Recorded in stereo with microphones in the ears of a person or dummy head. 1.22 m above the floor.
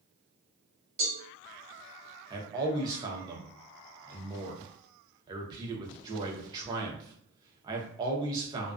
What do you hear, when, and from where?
1.0 s a cowbell: 40° right (ahead or behind), 1.1 m
2.3 s a man speaking: 25° right (ahead or behind), 0.7 m